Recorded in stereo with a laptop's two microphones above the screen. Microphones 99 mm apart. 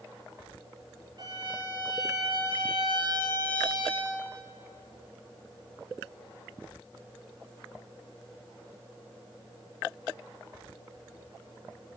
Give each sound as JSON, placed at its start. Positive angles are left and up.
{"t": 1.2, "sound": "a violin", "side_deg": -55, "distance_m": 1.2}